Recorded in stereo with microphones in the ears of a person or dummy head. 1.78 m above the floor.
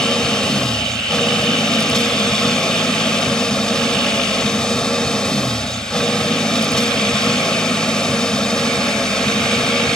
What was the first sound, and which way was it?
An engine running, 5° left (ahead or behind).